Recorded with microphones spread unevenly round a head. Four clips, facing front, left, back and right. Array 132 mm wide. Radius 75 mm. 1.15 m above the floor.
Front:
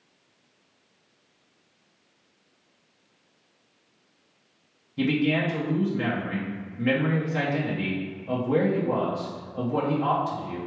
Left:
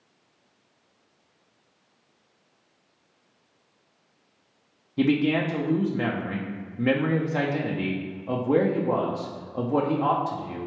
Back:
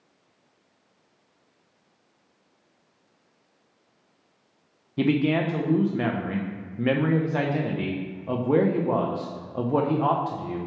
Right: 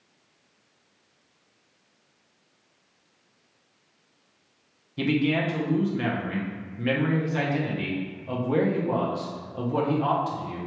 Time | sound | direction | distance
5.0 | a man speaking | 145° left | 0.7 m